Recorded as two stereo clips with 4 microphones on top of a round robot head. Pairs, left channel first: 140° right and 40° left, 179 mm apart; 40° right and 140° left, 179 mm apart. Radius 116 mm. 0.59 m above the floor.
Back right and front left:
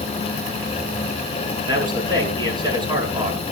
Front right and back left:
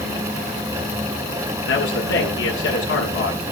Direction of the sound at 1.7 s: 25° right.